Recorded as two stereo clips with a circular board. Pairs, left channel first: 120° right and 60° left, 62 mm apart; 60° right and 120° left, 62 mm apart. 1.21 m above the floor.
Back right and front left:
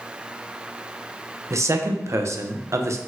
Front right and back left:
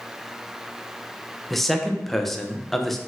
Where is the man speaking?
25° left, 0.6 m.